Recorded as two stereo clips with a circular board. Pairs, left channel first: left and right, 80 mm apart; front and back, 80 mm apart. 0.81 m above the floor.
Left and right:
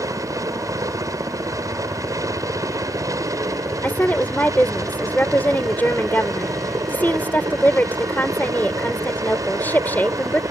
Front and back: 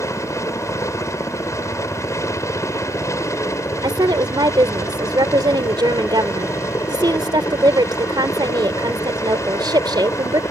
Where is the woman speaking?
155° left.